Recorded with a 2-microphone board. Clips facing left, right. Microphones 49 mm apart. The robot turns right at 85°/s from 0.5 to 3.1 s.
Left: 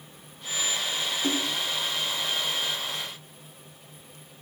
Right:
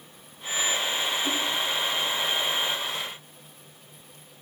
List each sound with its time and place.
1.2 s a splash: 60° left (ahead or behind), 4.5 m; by 1.6 s 75° left (ahead or behind), 4.5 m